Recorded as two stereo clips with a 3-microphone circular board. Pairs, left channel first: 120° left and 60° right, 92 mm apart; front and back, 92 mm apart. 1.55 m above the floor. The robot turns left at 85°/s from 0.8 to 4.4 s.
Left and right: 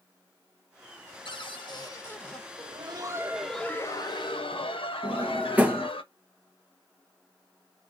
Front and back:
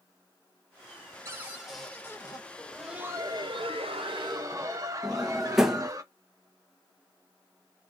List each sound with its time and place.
1.2 s a cupboard door: 130° left, 1.1 m; by 2.4 s 30° left, 1.1 m
2.6 s laughter: 75° right, 1.0 m; by 6.0 s 130° left, 1.0 m
5.0 s a drawer: 105° right, 0.7 m